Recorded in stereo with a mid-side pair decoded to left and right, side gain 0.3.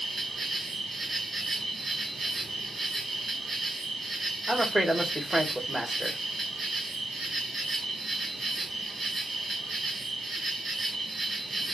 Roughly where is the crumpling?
I don't hear crumpling.